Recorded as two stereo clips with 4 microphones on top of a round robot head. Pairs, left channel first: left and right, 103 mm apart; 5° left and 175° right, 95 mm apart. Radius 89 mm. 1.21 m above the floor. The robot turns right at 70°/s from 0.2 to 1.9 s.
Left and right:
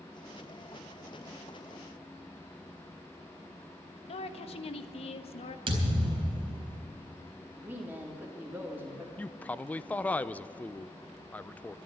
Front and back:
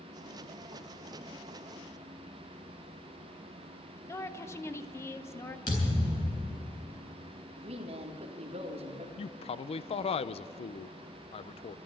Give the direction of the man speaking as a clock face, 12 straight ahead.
12 o'clock.